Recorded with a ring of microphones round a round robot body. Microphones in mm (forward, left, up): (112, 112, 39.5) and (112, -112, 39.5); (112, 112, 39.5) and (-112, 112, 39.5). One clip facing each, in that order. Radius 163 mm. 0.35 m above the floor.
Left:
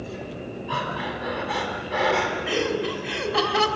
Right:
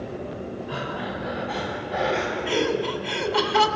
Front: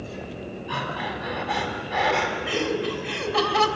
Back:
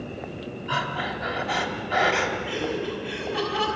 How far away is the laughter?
About 3 m.